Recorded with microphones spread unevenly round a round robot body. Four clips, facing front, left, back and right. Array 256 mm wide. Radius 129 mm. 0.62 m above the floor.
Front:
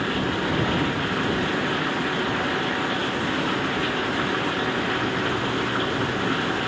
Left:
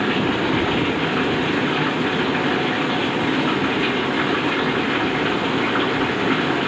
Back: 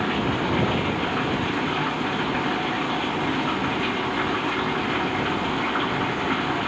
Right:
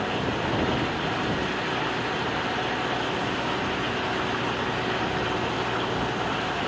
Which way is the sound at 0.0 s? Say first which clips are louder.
Left 7 dB, back 1 dB; 105° left.